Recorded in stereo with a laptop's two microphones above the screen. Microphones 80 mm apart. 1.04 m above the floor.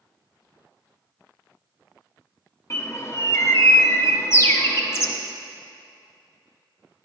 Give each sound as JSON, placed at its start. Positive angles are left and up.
{"t": 2.7, "sound": "a bird", "side_deg": 35, "distance_m": 0.8}